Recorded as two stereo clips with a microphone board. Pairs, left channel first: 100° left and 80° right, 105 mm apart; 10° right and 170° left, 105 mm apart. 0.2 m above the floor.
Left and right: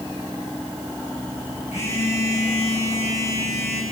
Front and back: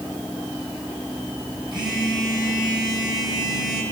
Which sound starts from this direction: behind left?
A phone buzzing, at 1.7 s.